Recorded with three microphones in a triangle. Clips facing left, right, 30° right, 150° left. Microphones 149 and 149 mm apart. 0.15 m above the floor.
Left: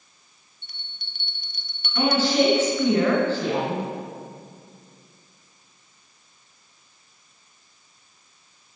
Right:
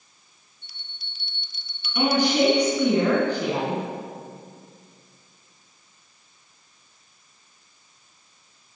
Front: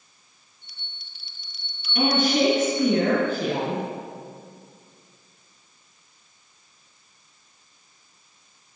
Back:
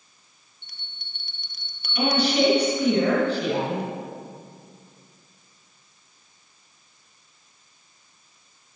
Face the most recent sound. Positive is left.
turn(degrees=-20)